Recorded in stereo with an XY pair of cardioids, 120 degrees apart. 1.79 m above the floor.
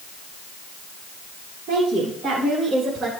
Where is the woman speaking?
65° right, 4 m; by 3.1 s 45° right, 2.5 m.